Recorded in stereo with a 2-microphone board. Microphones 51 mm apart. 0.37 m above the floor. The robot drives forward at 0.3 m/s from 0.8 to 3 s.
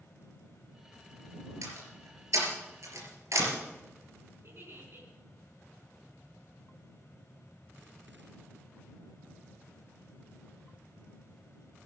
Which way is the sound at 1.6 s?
75° right (ahead or behind).